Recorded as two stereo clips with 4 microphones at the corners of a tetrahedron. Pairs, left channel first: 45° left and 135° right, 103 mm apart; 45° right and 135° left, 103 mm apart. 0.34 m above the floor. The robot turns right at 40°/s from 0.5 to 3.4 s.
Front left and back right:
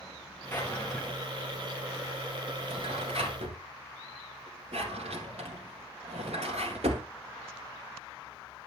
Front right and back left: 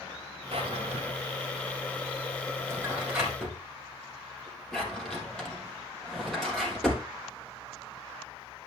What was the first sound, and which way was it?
A drawer, 115° left.